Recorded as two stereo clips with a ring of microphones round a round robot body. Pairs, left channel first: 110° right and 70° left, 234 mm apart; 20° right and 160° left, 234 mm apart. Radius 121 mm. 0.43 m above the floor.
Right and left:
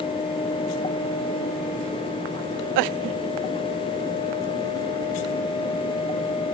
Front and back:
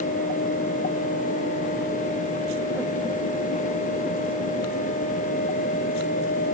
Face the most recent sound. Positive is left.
No sound to turn to.